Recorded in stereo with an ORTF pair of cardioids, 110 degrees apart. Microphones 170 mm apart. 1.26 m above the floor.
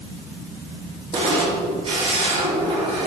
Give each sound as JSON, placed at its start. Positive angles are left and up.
{"t": 1.1, "sound": "a camera shutter", "azimuth_deg": -35, "distance_m": 3.0}